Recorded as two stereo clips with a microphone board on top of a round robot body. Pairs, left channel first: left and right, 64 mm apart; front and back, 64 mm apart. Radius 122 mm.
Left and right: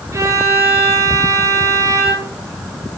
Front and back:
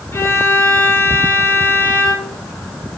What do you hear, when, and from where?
0.1 s a violin: 50° right, 4 m